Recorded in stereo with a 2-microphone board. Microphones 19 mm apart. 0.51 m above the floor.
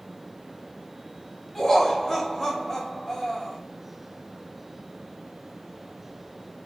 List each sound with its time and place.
1.6 s laughter: 10° left (ahead or behind), 1.1 m